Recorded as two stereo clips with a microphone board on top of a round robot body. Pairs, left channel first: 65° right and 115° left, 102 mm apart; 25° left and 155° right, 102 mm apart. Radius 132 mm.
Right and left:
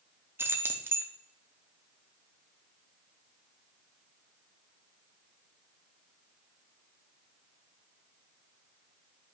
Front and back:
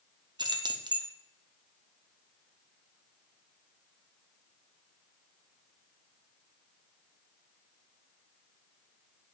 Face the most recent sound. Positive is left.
turn(degrees=175)